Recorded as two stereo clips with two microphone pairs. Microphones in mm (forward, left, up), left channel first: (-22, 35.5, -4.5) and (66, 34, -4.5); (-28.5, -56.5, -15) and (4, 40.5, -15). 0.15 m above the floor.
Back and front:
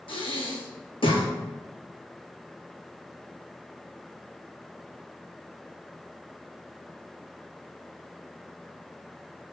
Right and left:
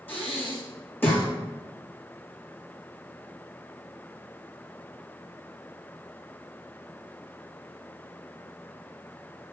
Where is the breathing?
175° right, 1.3 m.